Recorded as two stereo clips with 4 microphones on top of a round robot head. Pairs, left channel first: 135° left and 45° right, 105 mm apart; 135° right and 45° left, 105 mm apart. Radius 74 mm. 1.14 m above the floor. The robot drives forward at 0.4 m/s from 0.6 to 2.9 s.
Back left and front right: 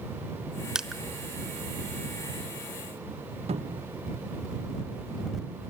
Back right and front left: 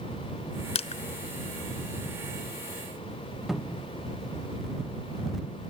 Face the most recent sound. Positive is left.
turn(degrees=-40)